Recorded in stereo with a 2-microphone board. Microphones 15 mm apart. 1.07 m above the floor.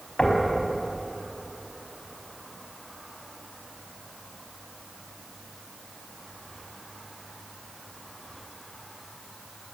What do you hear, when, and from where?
0.2 s knocking: 70° left (ahead or behind), 4.5 m